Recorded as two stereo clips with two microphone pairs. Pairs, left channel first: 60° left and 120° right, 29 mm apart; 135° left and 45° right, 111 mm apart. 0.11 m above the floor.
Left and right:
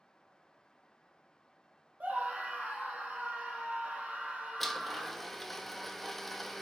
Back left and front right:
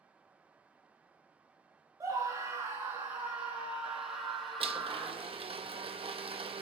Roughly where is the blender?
Ahead.